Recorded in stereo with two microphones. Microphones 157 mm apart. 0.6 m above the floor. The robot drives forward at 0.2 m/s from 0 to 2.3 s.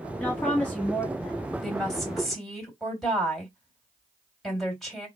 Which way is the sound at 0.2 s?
10° left (ahead or behind).